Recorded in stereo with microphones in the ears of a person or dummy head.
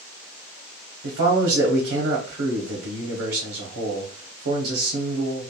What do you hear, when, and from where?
1.0 s a man speaking: 60° right (ahead or behind), 0.7 m